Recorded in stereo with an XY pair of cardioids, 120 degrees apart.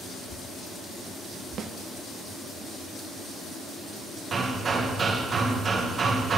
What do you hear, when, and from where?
1.6 s a snare drum: 50° right, 0.6 m
4.3 s hammering: 35° right, 1.4 m